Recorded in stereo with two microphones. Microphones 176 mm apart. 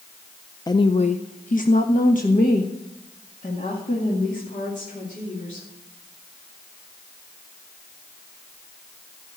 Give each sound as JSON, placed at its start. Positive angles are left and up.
{"t": 0.7, "sound": "a woman speaking", "side_deg": 25, "distance_m": 0.6}